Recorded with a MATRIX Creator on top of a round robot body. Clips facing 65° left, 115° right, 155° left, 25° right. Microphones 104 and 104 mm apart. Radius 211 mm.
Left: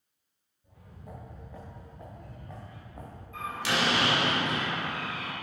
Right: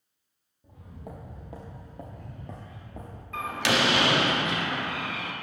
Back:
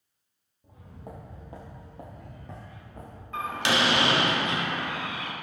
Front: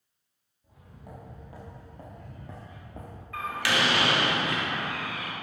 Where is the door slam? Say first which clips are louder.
Right 4 dB, back 2 dB; 135° right, 1.0 m.